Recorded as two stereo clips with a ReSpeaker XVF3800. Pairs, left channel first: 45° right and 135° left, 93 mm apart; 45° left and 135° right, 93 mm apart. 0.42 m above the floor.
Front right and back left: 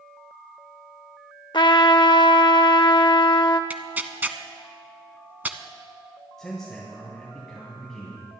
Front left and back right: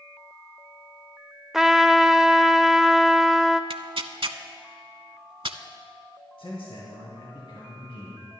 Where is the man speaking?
40° left, 3 m.